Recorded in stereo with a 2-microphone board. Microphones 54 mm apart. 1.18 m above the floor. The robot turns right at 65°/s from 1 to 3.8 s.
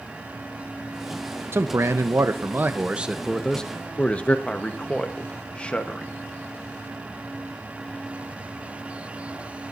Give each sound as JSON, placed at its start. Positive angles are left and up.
{"t": 1.5, "sound": "a man speaking", "azimuth_deg": -115, "distance_m": 0.9}
{"t": 4.5, "sound": "a man speaking", "side_deg": 20, "distance_m": 1.1}